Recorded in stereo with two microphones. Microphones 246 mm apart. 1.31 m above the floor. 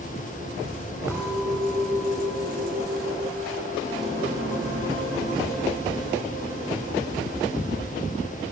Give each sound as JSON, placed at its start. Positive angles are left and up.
{"t": 1.1, "sound": "a clink", "side_deg": -10, "distance_m": 6.0}